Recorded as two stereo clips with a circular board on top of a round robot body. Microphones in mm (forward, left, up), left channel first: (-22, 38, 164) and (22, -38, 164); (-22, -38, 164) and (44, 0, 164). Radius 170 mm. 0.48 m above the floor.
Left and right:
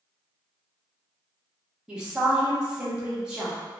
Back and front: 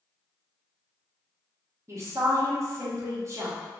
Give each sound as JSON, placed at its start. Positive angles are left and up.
{"t": 1.9, "sound": "a woman speaking", "azimuth_deg": 15, "distance_m": 0.9}